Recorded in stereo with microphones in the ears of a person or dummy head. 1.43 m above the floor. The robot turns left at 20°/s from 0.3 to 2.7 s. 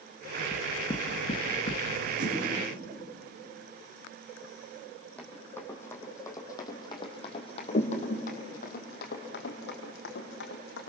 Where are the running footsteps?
10° left (ahead or behind), 4.5 m; by 10.9 s 70° left (ahead or behind), 4.5 m.